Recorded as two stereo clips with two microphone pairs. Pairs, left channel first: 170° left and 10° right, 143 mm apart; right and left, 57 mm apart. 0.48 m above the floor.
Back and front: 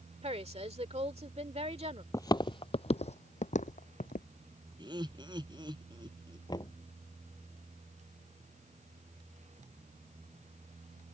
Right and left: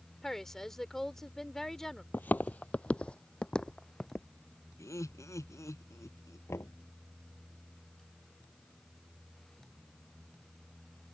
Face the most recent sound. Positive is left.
turn(degrees=-125)